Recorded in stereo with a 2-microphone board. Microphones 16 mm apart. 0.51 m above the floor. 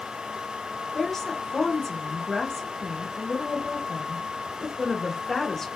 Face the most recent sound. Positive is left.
turn(degrees=20)  # may be behind; listen again after turning